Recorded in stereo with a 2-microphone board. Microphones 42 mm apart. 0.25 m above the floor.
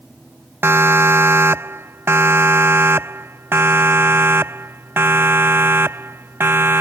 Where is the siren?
70° right (ahead or behind); by 6.8 s 65° right (ahead or behind).